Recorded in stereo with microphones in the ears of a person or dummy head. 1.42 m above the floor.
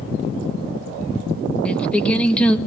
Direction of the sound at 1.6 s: 10° left (ahead or behind).